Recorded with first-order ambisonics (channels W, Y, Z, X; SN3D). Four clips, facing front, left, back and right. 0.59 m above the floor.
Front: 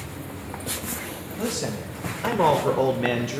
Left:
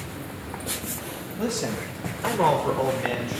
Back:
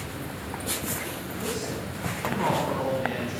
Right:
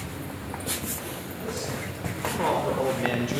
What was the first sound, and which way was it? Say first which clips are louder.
A man speaking: left 6 dB, front 4 dB; 50° left.